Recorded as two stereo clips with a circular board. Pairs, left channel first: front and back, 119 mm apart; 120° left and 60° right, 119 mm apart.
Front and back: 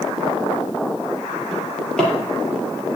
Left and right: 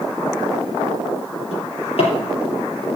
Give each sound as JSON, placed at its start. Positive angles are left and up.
{"t": 1.5, "sound": "a drawer", "azimuth_deg": 85, "distance_m": 5.5}